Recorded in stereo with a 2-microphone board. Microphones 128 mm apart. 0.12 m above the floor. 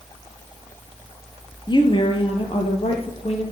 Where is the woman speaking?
35° left (ahead or behind), 2 m; by 3.4 s 55° left (ahead or behind), 3 m.